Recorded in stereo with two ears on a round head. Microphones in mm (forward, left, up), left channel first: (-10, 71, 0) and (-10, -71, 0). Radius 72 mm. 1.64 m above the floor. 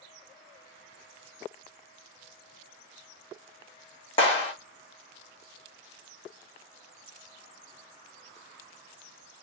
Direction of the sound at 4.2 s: 35° left (ahead or behind).